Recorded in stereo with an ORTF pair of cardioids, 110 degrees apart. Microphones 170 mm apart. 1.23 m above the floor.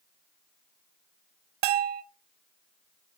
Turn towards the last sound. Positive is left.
turn(degrees=-70)